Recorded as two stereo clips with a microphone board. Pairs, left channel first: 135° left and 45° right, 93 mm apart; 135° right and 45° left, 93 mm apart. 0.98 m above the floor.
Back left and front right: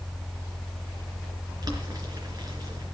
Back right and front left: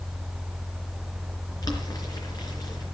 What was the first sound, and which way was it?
Boiling, 90° right.